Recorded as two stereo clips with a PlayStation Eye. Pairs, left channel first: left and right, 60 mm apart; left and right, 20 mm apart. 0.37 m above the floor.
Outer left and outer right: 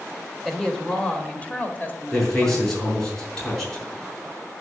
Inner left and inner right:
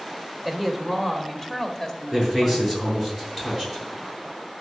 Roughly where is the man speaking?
Centre.